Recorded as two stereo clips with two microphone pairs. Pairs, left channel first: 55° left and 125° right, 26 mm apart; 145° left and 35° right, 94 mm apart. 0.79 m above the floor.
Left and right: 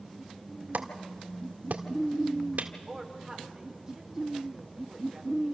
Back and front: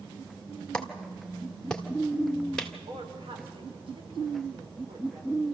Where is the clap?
130° right, 1.8 m.